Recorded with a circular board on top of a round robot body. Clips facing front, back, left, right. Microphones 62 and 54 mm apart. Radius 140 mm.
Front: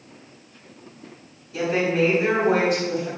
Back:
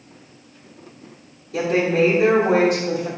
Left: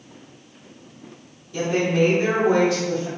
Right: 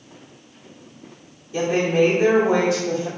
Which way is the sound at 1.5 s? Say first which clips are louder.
Back 3 dB, right 2 dB; 145° right.